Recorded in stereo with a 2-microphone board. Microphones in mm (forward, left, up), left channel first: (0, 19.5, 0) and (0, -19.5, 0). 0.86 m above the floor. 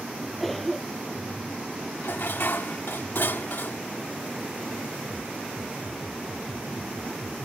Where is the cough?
5° left (ahead or behind).